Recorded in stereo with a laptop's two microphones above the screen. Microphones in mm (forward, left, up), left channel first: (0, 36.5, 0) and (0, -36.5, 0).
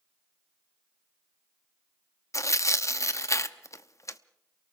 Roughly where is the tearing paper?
Left.